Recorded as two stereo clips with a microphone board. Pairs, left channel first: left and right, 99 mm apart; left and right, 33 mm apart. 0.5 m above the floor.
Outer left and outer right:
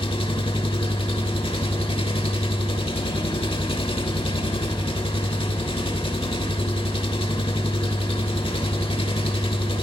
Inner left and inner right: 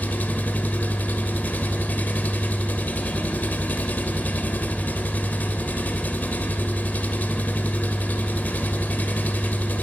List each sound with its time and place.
0.0 s an engine running: 65° left (ahead or behind), 1.1 m